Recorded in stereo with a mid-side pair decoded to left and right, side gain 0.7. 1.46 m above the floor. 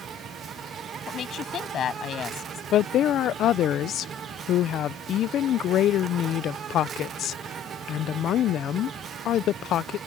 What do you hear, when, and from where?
0.0 s an insect: 35° right
1.1 s a woman speaking: 40° left
2.7 s a woman speaking: 45° left